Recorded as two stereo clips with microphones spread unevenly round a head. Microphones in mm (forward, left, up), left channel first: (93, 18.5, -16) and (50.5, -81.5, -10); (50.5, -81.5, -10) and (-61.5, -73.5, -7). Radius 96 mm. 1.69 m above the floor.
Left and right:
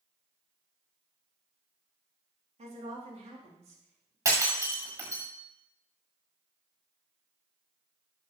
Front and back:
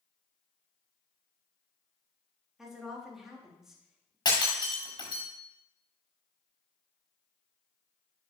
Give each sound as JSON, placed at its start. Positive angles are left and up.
{"t": 2.6, "sound": "a woman speaking", "azimuth_deg": -100, "distance_m": 4.0}
{"t": 4.2, "sound": "breaking glass", "azimuth_deg": -55, "distance_m": 7.5}